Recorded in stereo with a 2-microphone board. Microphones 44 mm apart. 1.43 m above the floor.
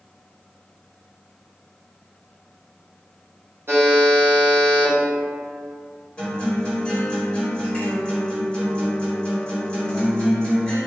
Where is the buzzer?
65° right (ahead or behind), 0.7 m.